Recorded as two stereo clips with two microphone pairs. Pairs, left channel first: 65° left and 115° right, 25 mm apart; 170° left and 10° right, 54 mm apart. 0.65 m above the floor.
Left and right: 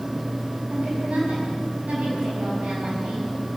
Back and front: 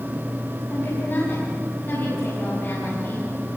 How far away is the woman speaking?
About 6 m.